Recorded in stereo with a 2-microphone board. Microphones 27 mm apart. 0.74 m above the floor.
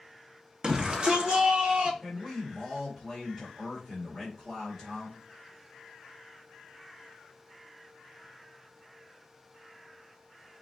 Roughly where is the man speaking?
Centre.